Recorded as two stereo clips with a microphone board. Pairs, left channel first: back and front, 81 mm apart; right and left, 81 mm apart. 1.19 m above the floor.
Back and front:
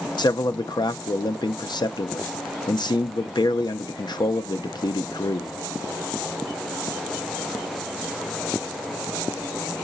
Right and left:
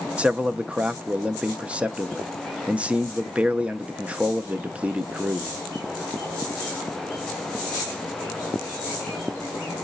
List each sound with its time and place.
0.2 s a man speaking: 165° left, 0.6 m